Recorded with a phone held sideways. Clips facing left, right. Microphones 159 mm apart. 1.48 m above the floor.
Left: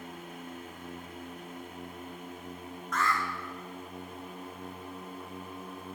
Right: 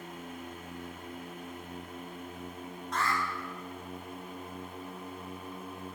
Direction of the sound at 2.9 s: 35° right (ahead or behind).